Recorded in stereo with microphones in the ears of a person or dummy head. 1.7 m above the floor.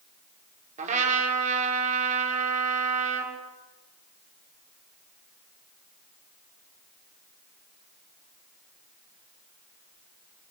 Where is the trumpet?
45° right (ahead or behind), 5 m.